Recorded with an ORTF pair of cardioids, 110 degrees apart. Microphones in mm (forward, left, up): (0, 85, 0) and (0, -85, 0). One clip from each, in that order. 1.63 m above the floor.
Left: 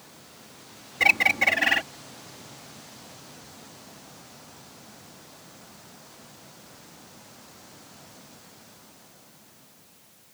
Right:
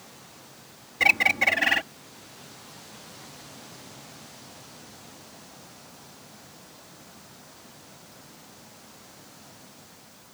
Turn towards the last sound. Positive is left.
turn(degrees=0)